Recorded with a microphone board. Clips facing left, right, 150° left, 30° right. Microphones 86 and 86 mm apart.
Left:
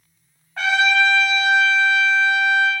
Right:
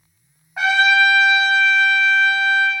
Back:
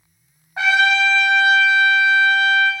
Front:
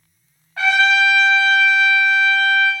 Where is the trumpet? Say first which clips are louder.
Right 3 dB, front 1 dB; 160° right, 0.8 m.